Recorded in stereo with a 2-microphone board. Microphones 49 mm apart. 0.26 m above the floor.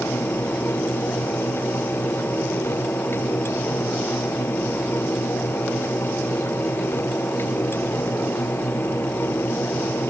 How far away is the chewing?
No chewing in this recording.